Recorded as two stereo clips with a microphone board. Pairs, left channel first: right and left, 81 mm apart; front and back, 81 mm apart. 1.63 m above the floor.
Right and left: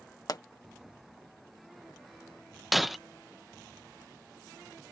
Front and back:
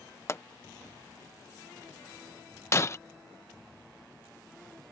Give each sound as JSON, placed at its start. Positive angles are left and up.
{"t": 0.3, "sound": "a pop", "azimuth_deg": -55}
{"t": 2.7, "sound": "breaking glass", "azimuth_deg": 0}